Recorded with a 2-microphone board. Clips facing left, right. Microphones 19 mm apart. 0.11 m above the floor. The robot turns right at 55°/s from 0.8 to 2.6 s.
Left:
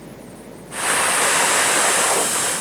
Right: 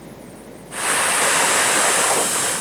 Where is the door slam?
I don't hear a door slam.